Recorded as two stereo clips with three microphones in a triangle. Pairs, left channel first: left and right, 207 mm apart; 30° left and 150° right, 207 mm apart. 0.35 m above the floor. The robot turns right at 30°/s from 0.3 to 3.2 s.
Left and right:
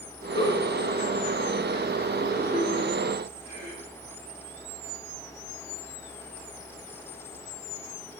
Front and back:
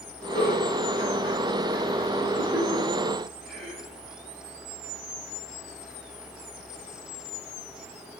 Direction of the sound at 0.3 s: 35° left.